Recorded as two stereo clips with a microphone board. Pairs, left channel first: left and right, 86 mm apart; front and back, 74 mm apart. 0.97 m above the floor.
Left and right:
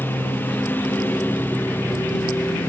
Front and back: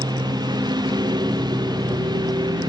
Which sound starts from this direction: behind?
A lawn mower, at 0.0 s.